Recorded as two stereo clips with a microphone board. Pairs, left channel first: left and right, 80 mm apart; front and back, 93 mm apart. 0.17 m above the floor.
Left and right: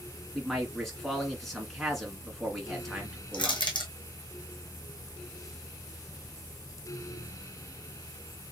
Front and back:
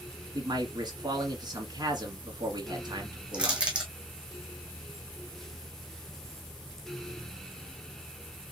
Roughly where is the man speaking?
Behind.